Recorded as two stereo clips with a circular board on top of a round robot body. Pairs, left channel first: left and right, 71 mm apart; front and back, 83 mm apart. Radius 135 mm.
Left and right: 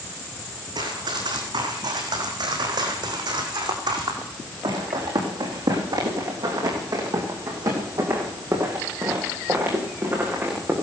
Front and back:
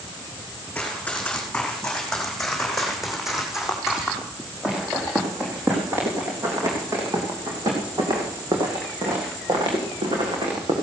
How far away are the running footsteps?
About 5 m.